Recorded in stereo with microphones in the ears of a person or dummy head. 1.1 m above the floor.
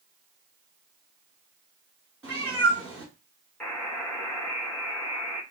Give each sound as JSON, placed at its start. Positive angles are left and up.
{"t": 2.2, "sound": "a cat meowing", "side_deg": -5, "distance_m": 0.8}
{"t": 3.6, "sound": "a buzzer", "side_deg": 5, "distance_m": 1.3}